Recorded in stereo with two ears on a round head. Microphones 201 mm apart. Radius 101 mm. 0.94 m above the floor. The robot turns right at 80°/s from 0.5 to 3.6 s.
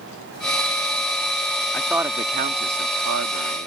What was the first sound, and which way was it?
A man speaking, 10° left (ahead or behind).